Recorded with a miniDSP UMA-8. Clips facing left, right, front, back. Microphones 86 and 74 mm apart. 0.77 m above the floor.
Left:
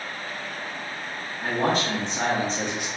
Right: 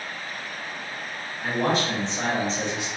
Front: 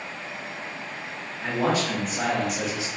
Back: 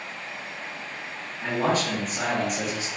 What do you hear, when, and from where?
1.4 s a man speaking: 135° left, 1.2 m